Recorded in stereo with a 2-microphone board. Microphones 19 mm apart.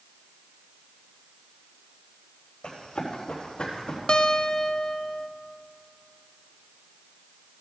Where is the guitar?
60° left (ahead or behind), 0.6 m.